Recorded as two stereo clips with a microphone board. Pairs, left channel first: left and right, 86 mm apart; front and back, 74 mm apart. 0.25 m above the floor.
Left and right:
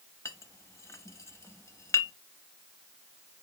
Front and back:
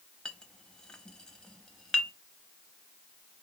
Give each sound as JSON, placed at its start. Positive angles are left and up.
{"t": 0.2, "sound": "a clink", "azimuth_deg": 70, "distance_m": 0.6}